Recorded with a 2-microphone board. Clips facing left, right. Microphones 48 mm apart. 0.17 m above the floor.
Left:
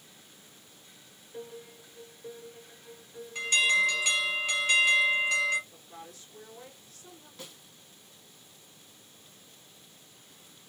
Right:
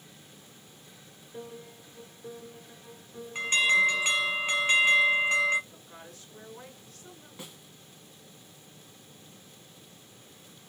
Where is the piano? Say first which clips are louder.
Even; 5° right (ahead or behind), 1.4 m.